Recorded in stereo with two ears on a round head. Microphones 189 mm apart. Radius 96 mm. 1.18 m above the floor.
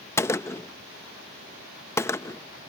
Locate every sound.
0.2 s a gunshot: 10° left (ahead or behind)